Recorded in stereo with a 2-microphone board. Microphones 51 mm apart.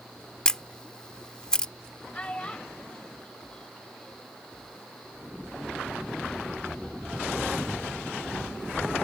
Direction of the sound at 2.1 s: 20° left (ahead or behind).